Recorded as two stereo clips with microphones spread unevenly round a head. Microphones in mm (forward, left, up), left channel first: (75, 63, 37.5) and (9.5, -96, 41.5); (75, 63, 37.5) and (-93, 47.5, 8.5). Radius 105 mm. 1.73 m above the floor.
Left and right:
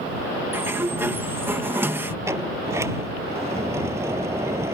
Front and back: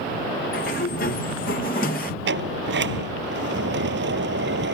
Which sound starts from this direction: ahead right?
A sliding door, at 0.5 s.